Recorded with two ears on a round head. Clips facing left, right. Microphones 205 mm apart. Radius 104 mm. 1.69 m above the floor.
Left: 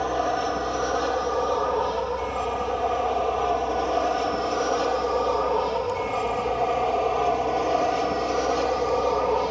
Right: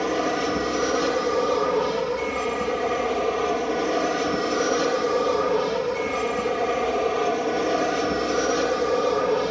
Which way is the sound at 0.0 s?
35° right (ahead or behind).